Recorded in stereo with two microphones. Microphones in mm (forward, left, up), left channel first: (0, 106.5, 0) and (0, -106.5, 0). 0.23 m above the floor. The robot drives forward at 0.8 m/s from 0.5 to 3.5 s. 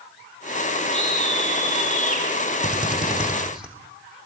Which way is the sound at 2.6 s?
5° right (ahead or behind).